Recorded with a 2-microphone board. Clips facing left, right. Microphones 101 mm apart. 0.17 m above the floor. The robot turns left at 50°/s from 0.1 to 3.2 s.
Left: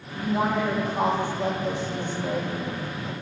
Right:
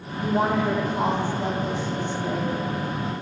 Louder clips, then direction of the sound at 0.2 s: Right 2 dB; 170° left.